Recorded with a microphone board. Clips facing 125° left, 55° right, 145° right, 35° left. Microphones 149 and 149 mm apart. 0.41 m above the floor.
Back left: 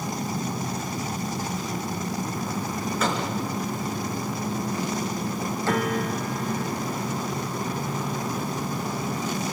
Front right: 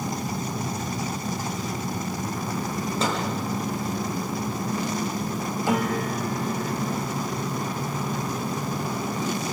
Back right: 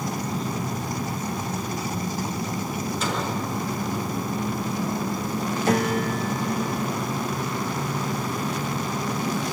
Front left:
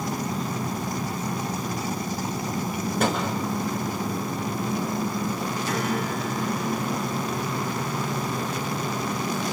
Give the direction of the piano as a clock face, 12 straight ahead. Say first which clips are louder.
Front right 1 dB, back right 6 dB; 4 o'clock.